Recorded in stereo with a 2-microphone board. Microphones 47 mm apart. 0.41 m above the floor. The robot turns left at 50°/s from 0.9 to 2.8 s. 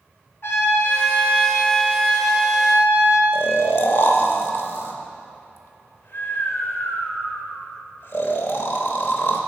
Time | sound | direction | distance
0.4 | a trumpet | 130° left | 3 m
3.3 | snoring | 55° left (ahead or behind) | 0.8 m